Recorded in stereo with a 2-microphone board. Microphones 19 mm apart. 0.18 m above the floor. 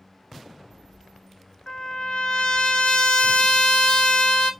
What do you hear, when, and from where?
1.7 s a trumpet: 55° left (ahead or behind), 0.6 m